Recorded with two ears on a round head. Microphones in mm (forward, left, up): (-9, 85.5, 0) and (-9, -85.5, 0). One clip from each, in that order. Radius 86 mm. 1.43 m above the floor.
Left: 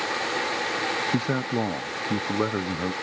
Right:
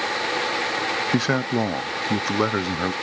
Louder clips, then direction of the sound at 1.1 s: Right 4 dB; 65° right (ahead or behind).